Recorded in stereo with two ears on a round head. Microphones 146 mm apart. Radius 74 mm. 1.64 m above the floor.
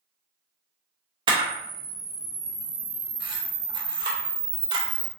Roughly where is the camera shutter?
Right.